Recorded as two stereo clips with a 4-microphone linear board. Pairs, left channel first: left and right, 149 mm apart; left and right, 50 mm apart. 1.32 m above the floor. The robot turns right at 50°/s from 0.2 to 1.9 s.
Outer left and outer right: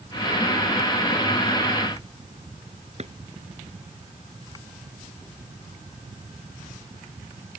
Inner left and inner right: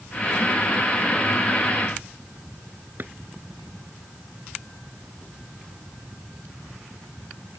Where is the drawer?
50° right (ahead or behind).